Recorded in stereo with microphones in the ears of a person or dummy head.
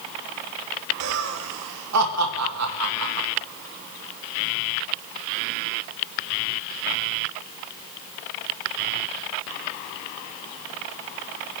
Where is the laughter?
80° right, 2.5 m.